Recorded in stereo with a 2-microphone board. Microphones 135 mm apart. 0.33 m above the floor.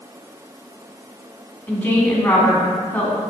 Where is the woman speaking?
15° left (ahead or behind), 2 m.